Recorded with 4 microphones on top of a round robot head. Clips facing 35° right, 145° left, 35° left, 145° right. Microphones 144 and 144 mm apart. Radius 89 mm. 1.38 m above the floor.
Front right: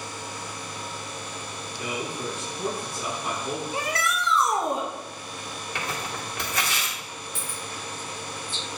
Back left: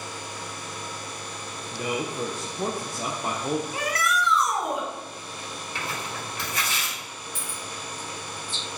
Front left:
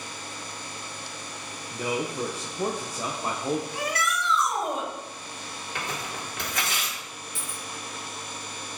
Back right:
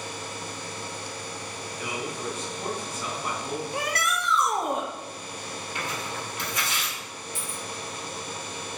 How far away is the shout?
About 1.9 m.